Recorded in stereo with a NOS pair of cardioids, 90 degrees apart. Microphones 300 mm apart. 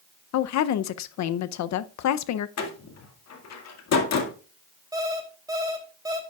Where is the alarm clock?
15° right, 3 m.